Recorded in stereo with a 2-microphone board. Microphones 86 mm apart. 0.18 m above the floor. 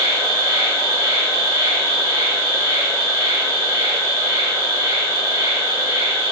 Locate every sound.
0.0 s an insect: 35° right (ahead or behind), 2.0 m